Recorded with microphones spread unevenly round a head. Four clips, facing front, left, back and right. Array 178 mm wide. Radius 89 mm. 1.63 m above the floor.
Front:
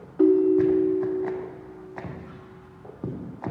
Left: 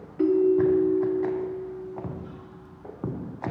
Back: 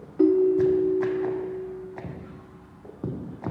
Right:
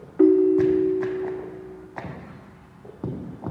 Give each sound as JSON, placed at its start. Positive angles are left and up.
{"t": 0.2, "sound": "a ringtone", "azimuth_deg": -100, "distance_m": 0.6}